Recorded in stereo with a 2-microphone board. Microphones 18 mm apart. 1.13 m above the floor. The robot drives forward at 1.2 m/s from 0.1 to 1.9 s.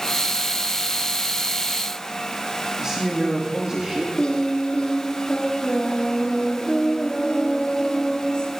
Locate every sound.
2.8 s a man speaking: 35° right (ahead or behind), 2.5 m
4.2 s singing: 55° left (ahead or behind), 1.9 m